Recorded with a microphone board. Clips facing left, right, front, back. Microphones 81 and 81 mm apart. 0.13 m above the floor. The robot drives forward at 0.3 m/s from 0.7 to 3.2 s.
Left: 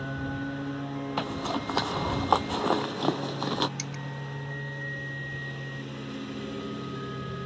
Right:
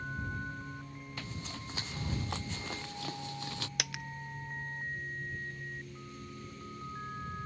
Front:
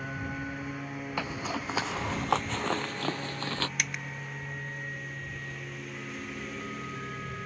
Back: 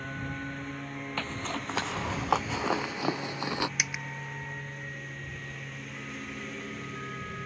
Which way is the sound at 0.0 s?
85° left.